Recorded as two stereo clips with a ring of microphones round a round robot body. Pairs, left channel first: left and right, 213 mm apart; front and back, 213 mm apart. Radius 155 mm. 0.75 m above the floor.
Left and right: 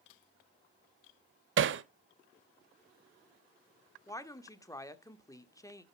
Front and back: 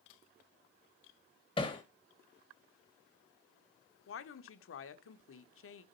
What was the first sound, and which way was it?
Hammering, 70° right.